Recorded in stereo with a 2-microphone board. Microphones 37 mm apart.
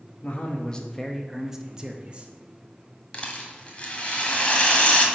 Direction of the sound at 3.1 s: 30° left (ahead or behind).